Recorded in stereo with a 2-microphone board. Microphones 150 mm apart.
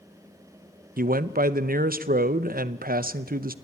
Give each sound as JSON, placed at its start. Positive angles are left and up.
{"t": 1.0, "sound": "a man speaking", "side_deg": -75, "distance_m": 0.7}